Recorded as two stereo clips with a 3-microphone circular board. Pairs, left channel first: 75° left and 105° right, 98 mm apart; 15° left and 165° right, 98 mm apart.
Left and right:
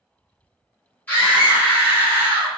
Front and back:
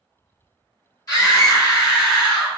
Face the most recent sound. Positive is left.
turn(degrees=25)